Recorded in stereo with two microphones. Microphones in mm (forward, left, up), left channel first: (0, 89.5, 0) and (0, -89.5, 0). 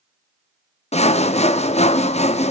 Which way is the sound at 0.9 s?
35° left (ahead or behind).